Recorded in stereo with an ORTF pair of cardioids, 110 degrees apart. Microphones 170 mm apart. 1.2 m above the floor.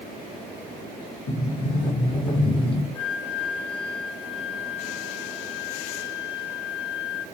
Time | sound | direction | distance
1.3 | a sliding door | 30° left | 1.1 m
3.0 | a flute | 35° left | 2 m